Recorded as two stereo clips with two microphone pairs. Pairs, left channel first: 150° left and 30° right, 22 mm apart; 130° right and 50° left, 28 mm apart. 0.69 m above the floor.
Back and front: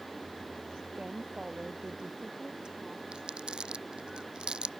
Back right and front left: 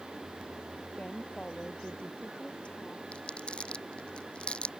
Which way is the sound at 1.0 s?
80° right.